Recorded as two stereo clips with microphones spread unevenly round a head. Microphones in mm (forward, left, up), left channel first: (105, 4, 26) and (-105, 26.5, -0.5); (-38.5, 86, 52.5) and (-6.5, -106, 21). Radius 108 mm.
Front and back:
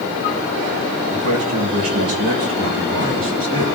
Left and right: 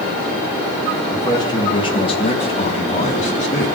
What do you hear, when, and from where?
1.1 s a man speaking: 170° left, 3.5 m; by 3.7 s 150° left, 5.5 m